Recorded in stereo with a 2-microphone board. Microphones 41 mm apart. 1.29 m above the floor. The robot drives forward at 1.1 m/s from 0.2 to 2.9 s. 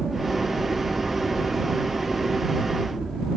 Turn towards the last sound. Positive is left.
turn(degrees=0)  # may be behind; listen again after turning